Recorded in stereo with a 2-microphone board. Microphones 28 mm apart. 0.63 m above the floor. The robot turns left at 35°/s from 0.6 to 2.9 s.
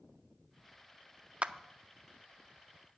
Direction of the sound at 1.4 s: 40° right (ahead or behind).